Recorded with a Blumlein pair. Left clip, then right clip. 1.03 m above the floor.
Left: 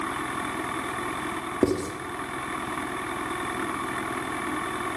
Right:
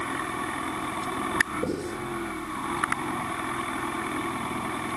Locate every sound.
1.6 s writing: 55° left, 2 m